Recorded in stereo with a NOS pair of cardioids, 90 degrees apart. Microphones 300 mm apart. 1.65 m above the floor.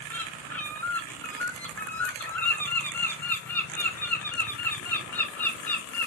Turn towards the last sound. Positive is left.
turn(degrees=5)